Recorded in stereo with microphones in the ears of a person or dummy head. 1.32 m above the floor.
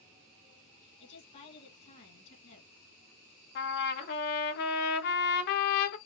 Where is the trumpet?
55° left (ahead or behind), 1.0 m.